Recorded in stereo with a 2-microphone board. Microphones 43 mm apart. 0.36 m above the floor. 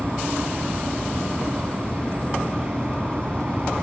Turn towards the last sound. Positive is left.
turn(degrees=-30)  # may be behind; listen again after turning